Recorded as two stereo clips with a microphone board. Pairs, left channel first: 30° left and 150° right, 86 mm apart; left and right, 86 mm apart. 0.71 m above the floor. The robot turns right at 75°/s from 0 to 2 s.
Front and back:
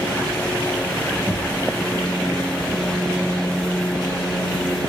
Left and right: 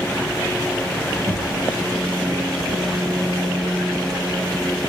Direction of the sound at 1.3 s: 100° right.